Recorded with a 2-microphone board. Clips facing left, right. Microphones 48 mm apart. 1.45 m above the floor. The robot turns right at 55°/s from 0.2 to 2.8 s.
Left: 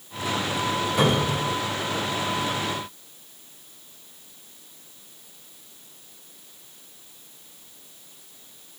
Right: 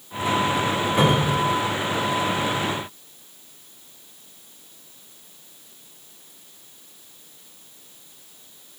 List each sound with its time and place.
1.0 s a cupboard door: 45° right (ahead or behind), 2.0 m; by 1.4 s 20° right (ahead or behind), 2.0 m